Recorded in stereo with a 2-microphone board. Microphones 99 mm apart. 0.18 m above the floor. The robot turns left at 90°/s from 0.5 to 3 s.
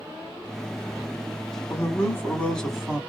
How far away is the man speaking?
About 1.2 m.